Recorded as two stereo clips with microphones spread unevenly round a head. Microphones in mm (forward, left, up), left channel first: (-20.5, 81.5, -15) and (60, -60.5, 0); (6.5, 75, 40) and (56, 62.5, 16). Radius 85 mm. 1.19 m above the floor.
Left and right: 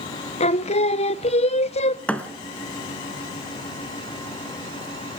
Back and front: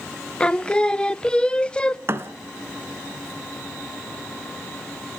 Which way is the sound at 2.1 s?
35° left.